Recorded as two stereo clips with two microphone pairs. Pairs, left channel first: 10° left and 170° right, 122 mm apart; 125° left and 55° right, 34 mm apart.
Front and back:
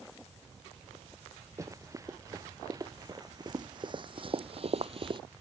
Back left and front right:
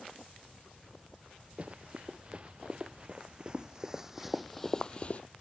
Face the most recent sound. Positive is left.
turn(degrees=150)